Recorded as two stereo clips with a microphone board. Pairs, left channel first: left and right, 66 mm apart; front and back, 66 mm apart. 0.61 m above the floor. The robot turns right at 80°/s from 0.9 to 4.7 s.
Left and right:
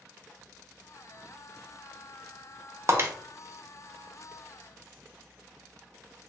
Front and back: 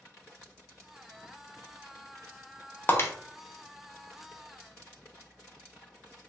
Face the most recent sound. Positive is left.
turn(degrees=90)